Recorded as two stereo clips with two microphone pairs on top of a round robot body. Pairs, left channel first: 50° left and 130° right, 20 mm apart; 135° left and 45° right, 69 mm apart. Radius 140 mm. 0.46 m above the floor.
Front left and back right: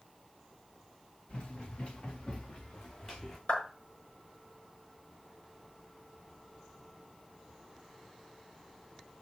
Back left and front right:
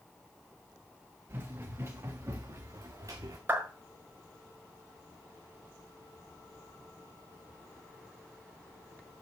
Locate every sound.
1.3 s running footsteps: 15° left, 5 m; by 3.4 s 10° right, 3 m
3.5 s a clap: 20° left, 5.5 m